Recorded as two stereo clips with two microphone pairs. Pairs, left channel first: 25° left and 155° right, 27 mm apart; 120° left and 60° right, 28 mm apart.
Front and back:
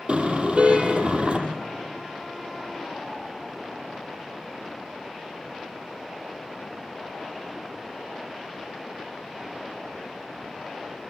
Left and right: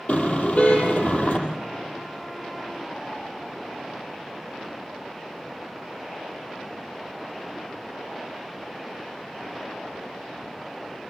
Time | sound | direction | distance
0.1 | a car horn | 160° left | 6 m